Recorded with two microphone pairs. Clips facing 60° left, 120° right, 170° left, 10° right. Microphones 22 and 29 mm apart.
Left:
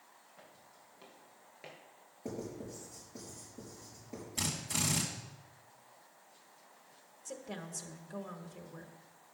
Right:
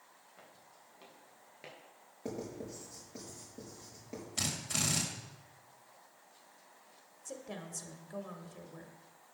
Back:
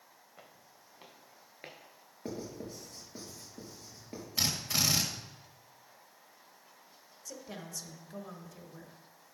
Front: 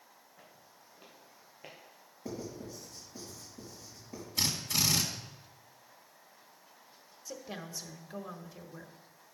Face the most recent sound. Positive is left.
turn(degrees=-35)